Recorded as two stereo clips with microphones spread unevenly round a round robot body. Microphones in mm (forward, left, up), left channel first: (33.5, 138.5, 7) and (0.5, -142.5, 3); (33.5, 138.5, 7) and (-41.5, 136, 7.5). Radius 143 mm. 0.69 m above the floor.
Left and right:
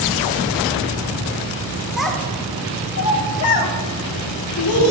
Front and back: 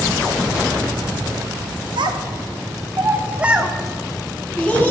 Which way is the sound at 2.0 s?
175° left.